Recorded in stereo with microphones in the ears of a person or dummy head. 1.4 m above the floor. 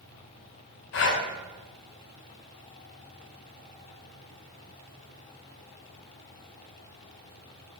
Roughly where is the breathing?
Left.